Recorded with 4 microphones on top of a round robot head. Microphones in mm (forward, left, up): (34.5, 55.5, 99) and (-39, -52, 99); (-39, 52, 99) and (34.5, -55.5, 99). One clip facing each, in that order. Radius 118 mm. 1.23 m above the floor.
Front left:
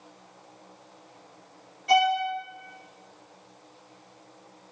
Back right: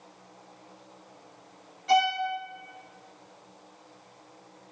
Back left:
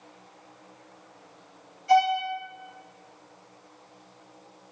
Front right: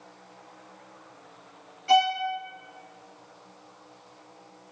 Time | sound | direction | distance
1.9 | a violin | 30° right | 0.8 m